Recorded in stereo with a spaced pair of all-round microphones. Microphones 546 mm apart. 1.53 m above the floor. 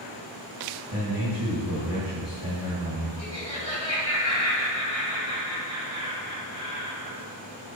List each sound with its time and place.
0.9 s a man speaking: 30° right (ahead or behind), 2.5 m
3.2 s laughter: 85° left, 2.5 m